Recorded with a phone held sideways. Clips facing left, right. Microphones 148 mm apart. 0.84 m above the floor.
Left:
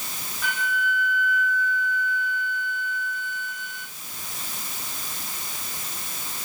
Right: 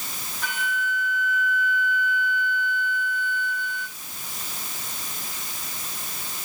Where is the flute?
5° left (ahead or behind), 3 m.